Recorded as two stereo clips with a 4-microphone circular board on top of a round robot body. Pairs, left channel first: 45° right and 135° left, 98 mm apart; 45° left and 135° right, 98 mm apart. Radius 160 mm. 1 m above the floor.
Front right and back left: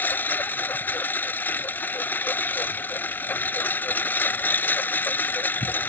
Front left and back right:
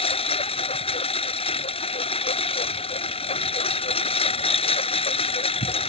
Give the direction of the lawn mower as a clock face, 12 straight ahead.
11 o'clock.